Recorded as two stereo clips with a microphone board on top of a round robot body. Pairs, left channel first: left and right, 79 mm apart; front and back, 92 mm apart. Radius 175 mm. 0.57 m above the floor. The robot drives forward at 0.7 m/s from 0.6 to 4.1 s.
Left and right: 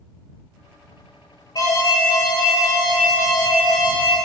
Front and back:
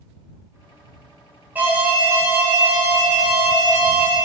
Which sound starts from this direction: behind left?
An alarm, at 1.6 s.